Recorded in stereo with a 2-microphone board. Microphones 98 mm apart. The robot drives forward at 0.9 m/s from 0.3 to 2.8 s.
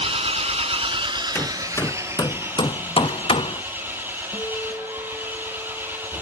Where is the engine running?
70° right (ahead or behind), 0.8 m; by 6.2 s 20° right (ahead or behind), 2 m.